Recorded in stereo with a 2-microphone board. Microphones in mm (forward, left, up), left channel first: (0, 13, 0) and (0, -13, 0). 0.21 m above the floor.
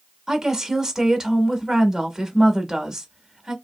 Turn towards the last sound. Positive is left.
turn(degrees=-20)  # may be behind; listen again after turning